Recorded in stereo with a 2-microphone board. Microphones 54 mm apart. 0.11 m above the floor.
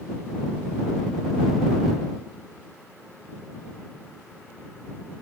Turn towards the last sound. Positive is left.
No sound to turn to.